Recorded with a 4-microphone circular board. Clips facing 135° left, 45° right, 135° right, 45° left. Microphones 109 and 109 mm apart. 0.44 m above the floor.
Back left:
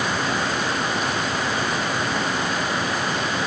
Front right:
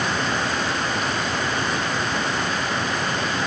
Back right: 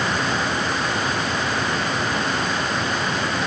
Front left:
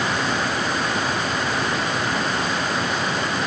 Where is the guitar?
No guitar in this recording.